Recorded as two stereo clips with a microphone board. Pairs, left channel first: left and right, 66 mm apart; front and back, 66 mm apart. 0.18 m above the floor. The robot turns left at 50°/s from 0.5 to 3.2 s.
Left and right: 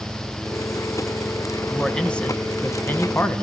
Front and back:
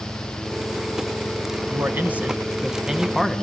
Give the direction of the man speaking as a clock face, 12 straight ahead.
6 o'clock.